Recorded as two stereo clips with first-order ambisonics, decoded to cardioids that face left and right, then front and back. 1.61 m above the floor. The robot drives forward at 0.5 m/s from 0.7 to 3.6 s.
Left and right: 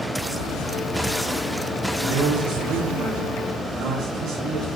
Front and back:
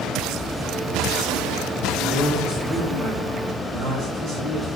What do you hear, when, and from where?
2.0 s a man speaking: 105° right, 1.9 m; by 4.7 s 125° right, 2 m